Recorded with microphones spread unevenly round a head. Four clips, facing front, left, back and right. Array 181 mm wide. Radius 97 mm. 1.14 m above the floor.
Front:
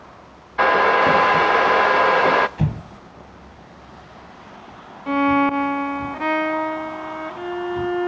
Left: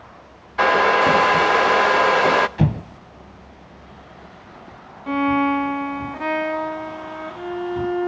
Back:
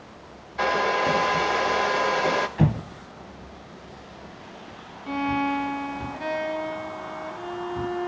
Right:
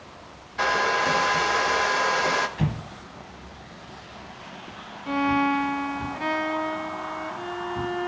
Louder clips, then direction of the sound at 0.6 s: Left 7 dB, front 7 dB; 10° left.